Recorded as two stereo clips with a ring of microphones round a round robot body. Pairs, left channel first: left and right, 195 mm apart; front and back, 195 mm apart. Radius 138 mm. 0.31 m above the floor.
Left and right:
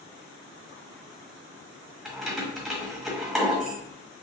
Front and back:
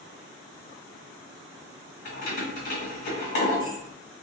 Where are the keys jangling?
Straight ahead, 1.5 m.